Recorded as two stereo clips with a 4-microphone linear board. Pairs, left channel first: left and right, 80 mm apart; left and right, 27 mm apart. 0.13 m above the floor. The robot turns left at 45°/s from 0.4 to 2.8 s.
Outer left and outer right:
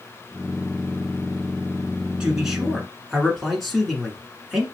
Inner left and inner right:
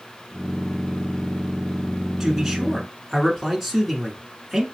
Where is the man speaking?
10° right (ahead or behind), 1.3 m; by 4.7 s 5° left (ahead or behind), 1.3 m.